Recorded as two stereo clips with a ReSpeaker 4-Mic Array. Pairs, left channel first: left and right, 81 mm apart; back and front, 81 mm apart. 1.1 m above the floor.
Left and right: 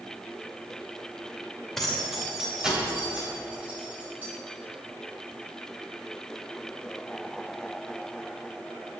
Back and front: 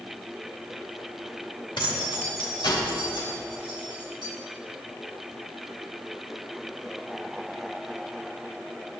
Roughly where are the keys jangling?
Behind.